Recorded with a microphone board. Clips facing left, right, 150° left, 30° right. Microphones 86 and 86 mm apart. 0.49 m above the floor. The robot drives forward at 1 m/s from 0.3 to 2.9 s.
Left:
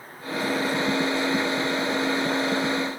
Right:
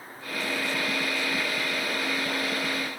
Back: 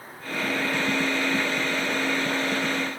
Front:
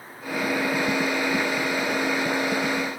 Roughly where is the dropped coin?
I don't hear a dropped coin.